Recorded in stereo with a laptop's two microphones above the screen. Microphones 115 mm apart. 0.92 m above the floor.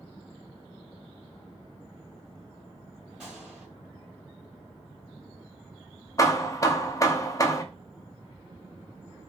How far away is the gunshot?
About 2 m.